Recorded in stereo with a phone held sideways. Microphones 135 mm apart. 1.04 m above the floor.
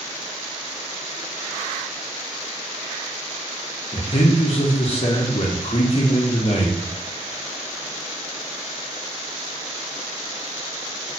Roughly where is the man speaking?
Left.